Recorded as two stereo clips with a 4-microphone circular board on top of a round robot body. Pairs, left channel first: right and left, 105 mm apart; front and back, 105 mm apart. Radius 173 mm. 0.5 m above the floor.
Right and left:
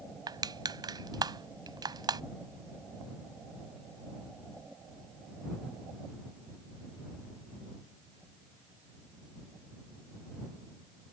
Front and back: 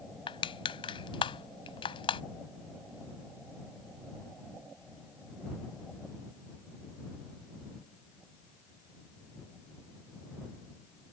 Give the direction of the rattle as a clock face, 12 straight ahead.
No rattle in this recording.